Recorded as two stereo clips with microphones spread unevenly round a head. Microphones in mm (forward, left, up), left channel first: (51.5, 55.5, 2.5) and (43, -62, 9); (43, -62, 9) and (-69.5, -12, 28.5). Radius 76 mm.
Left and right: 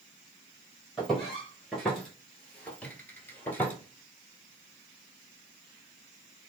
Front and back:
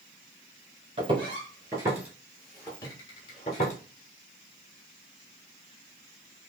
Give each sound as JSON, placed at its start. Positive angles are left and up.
{"t": 1.0, "sound": "footsteps", "azimuth_deg": 180, "distance_m": 1.6}